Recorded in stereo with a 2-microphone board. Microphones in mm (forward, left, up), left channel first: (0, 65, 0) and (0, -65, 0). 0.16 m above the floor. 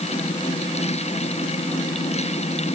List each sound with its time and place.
Only background noise.